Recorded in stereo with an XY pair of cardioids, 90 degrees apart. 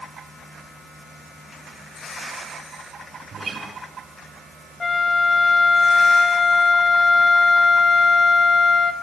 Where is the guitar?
40° right, 5 m.